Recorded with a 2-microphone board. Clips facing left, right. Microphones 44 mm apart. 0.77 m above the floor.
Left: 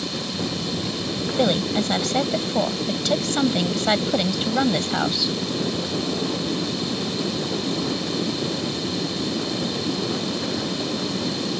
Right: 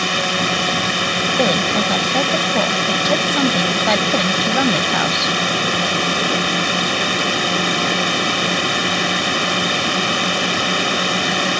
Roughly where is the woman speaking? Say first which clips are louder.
Right 2 dB; centre.